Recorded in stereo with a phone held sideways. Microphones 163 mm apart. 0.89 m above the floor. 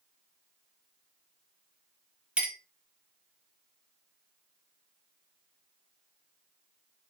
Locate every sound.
2.4 s a clink: 5° right (ahead or behind), 0.6 m